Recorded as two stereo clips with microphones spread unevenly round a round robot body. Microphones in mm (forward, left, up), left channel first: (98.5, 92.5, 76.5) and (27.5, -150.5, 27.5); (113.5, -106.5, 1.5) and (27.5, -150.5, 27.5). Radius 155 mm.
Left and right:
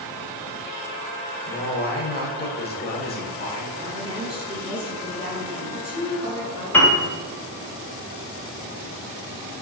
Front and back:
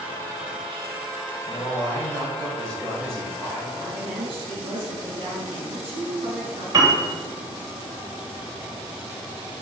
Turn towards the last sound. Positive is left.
turn(degrees=170)